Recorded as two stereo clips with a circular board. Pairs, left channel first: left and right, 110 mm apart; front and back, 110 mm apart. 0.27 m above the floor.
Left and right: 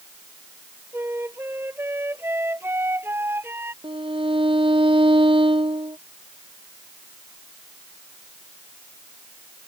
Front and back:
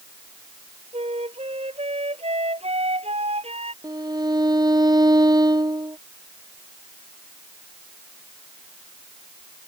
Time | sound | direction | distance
0.9 | a flute | 160° right | ?
3.8 | a violin | 130° right | ?